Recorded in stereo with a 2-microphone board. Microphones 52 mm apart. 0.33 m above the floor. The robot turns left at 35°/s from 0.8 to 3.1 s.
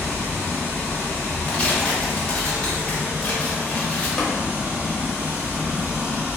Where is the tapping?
15° left (ahead or behind), 0.8 m.